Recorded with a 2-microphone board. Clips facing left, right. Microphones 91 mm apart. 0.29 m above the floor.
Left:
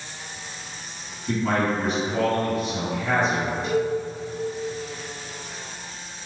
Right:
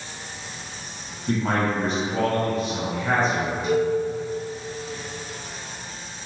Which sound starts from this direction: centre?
A cowbell, at 3.6 s.